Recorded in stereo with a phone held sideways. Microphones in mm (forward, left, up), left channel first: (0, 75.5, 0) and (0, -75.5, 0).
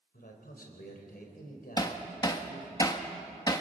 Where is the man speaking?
80° left, 3.5 m.